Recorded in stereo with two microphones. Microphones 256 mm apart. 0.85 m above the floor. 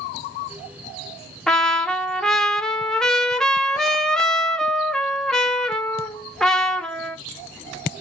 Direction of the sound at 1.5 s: Centre (ahead or behind).